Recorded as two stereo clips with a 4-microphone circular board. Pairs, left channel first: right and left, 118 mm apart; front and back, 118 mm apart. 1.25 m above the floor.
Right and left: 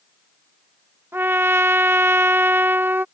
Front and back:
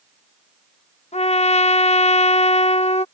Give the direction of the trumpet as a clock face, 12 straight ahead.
11 o'clock.